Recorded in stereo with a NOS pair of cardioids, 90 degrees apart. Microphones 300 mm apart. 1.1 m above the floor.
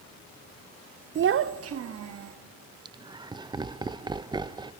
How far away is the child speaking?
About 0.5 m.